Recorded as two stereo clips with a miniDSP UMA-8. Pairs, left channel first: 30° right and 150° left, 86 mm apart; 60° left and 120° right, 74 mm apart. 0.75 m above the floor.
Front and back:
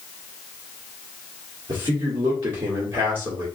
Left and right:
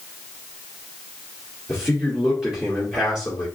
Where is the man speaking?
160° left, 1.6 m.